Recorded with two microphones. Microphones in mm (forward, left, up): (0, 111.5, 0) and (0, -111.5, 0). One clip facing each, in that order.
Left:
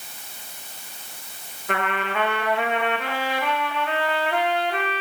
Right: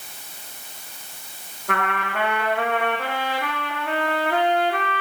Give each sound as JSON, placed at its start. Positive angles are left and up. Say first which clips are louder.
{"t": 1.7, "sound": "a trumpet", "louder": "left 1 dB", "side_deg": -60, "distance_m": 6.0}